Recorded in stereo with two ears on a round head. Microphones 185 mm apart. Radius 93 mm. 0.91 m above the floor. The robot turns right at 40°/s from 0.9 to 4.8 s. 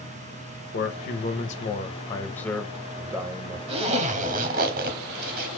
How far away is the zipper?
About 0.9 m.